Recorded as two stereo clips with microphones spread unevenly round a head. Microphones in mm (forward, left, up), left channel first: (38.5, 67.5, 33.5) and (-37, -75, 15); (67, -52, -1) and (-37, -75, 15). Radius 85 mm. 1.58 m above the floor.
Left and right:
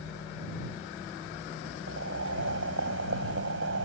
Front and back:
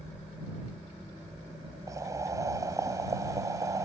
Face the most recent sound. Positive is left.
turn(degrees=-110)